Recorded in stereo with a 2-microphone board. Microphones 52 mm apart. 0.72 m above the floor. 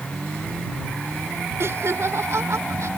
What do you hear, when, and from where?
1.6 s laughter: 60° right (ahead or behind); by 2.9 s 70° right (ahead or behind)